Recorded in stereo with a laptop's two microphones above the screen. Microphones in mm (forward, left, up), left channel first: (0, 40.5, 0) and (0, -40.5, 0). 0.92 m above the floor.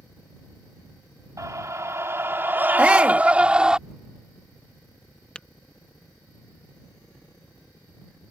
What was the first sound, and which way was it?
A scream, 45° right (ahead or behind).